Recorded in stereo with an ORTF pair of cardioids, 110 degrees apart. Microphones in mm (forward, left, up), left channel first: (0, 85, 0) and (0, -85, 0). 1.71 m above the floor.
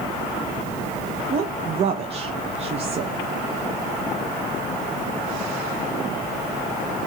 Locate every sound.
1.3 s a woman speaking: 40° right, 0.6 m